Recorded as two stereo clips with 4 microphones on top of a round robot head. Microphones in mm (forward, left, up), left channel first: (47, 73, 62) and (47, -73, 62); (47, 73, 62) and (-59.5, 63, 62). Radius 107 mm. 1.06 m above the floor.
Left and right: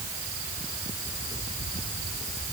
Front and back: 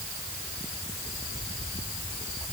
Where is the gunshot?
No gunshot in this recording.